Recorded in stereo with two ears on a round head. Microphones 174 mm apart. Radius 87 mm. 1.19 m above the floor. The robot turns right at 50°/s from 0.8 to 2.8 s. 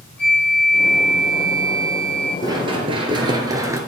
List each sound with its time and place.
0.2 s a flute: 175° left, 3.5 m; by 2.3 s 110° right, 3.5 m
2.4 s running footsteps: 20° right (ahead or behind), 1.6 m; by 3.8 s 15° right (ahead or behind), 1.2 m